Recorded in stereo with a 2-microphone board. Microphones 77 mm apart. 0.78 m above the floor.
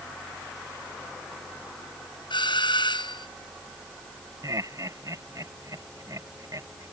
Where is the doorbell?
85° left.